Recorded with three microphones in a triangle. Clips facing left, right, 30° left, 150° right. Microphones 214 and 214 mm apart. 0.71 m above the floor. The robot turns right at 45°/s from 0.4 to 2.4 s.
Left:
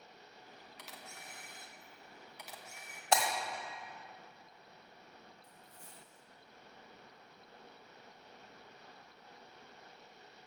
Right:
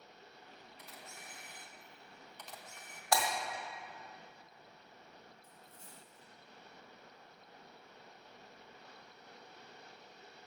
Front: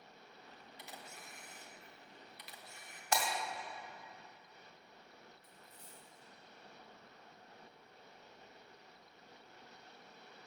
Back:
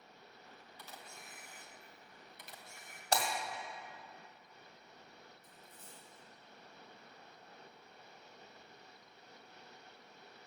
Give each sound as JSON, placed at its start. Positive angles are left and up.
{"t": 0.8, "sound": "a camera shutter", "azimuth_deg": 100, "distance_m": 1.0}
{"t": 3.1, "sound": "breaking glass", "azimuth_deg": 155, "distance_m": 1.6}
{"t": 5.4, "sound": "a dropped coin", "azimuth_deg": -25, "distance_m": 3.5}